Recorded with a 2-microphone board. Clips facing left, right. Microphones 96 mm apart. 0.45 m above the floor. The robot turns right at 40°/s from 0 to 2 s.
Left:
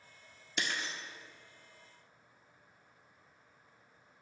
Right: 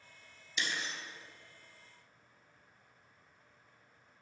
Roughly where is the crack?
No crack in this recording.